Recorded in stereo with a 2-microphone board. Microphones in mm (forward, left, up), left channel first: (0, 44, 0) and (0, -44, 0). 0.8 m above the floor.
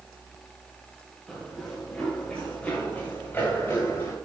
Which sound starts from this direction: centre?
Running footsteps, at 1.3 s.